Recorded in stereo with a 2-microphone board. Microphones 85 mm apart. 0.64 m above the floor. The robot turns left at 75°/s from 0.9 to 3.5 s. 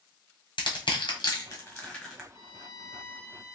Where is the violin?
85° left, 0.7 m; by 3.5 s straight ahead, 0.7 m.